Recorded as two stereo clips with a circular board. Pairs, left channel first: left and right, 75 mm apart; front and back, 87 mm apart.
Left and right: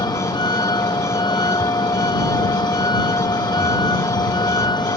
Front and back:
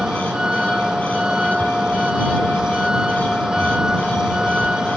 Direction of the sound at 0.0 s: 100° left.